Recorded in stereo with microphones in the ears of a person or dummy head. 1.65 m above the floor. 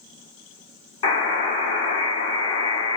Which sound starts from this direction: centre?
A buzzer, at 1.0 s.